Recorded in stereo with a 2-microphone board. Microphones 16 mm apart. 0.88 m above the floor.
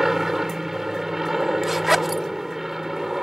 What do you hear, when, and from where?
0.0 s an aircraft: 15° right (ahead or behind)
1.6 s a zipper: 15° right (ahead or behind)